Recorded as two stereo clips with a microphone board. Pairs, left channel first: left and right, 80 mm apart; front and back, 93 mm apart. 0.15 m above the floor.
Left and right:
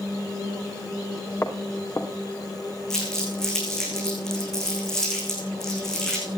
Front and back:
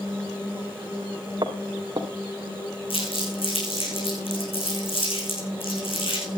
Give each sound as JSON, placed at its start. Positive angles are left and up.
{"t": 1.4, "sound": "footsteps", "azimuth_deg": 145, "distance_m": 2.5}
{"t": 2.9, "sound": "crumpling", "azimuth_deg": 5, "distance_m": 6.5}